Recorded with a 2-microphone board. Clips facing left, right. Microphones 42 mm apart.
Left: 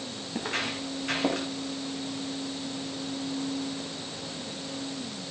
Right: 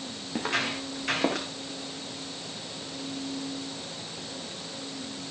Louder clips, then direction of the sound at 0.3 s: Right 3 dB; 85° right.